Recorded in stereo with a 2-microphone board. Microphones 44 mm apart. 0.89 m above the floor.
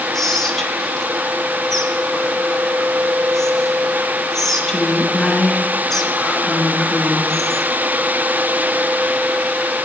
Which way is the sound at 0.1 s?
5° left (ahead or behind).